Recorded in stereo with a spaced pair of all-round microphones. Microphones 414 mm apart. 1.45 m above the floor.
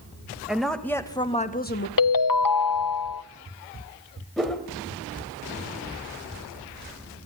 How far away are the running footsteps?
No running footsteps in this recording.